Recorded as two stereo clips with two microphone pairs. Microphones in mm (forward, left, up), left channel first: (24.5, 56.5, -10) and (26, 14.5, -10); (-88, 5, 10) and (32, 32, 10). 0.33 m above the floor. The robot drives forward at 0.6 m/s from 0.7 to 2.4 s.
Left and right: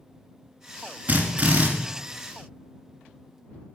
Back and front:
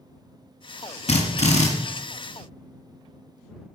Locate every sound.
1.1 s a drill: 140° right, 1.7 m; by 1.7 s 145° right, 2.0 m